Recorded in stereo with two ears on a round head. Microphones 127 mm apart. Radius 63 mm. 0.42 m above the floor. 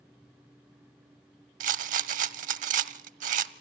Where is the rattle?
60° right (ahead or behind), 0.5 m.